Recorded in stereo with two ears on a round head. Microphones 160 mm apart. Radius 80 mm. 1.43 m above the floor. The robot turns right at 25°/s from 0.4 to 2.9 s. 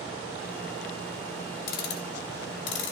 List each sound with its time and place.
1.7 s ticking: 55° left (ahead or behind), 3.5 m; by 2.9 s 75° left (ahead or behind), 3.5 m